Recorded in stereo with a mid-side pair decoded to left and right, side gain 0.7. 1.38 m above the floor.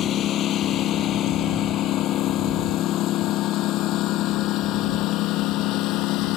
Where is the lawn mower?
45° left; by 6.4 s 60° left.